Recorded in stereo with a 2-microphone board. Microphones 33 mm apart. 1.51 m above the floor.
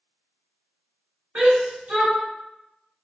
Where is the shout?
50° right (ahead or behind), 1.6 m.